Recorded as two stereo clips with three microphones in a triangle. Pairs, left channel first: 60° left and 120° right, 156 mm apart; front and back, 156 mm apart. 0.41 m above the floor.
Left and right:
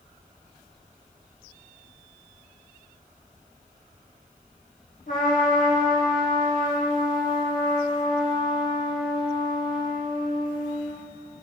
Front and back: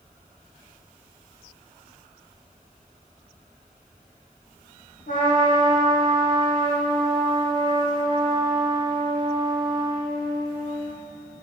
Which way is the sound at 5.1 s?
30° left.